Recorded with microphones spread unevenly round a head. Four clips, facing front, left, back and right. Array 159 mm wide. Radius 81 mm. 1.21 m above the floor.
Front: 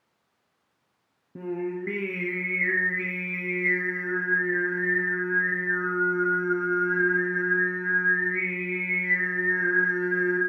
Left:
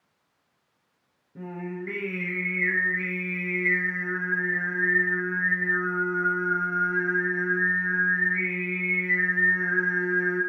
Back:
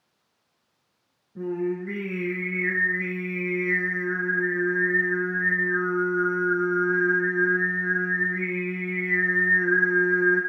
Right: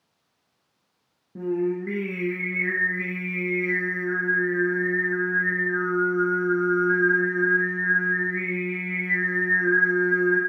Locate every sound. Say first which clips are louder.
1.4 s singing: right 10 dB, back 3 dB; 40° right, 4 m